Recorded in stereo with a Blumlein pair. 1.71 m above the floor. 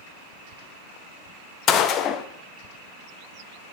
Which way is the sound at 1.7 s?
35° left.